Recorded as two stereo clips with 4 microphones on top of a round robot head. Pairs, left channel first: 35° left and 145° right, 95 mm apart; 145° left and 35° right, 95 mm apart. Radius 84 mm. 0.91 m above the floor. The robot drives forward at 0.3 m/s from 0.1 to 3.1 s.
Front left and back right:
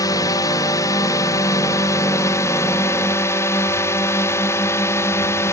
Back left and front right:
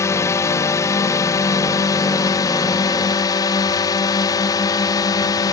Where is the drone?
85° left; by 5.5 s 95° left.